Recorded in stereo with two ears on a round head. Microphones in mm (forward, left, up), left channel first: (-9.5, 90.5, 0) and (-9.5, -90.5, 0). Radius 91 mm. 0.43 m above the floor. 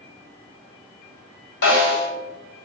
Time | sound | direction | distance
1.6 | a snare drum | 60° left (ahead or behind) | 1.5 m